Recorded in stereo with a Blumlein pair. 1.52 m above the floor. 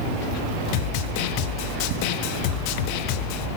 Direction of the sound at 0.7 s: 45° left.